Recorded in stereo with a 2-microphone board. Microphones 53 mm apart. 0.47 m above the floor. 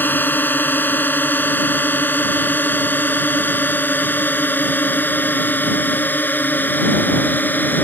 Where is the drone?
35° left (ahead or behind).